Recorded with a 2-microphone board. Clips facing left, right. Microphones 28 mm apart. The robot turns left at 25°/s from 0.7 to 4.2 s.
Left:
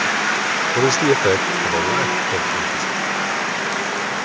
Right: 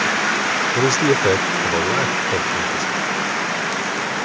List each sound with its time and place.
0.8 s a man speaking: 15° left (ahead or behind); by 2.9 s 10° right (ahead or behind)